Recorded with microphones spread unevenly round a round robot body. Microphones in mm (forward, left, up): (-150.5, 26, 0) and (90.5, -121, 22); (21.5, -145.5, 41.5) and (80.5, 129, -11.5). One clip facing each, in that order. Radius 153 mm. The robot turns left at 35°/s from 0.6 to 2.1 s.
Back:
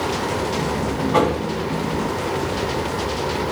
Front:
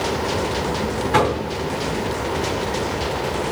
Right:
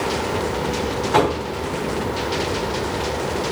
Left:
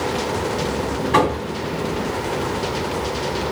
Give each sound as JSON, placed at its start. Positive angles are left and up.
{"t": 1.1, "sound": "knocking", "azimuth_deg": 30, "distance_m": 2.5}